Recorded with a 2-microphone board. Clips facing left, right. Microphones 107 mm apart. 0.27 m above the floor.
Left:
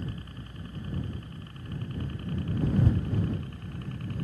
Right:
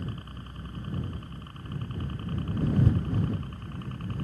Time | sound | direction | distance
0.0 | a helicopter | 40° right (ahead or behind) | ?